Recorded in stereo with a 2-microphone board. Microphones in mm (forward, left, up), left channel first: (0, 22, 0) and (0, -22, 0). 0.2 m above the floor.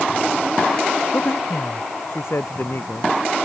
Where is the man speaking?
65° left (ahead or behind).